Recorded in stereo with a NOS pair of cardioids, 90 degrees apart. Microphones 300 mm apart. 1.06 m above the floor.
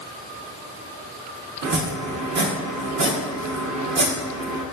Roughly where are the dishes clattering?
No dishes clattering in this recording.